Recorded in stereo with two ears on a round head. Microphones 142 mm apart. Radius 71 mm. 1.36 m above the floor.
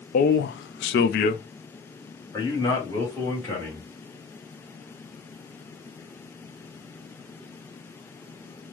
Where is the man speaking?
55° left (ahead or behind), 0.6 m; by 3.9 s 15° left (ahead or behind), 1.8 m.